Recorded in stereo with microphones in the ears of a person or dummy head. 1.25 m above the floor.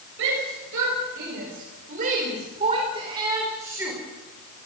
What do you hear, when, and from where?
0.2 s a shout: 65° right (ahead or behind), 6 m; by 4.0 s 10° right (ahead or behind), 4.5 m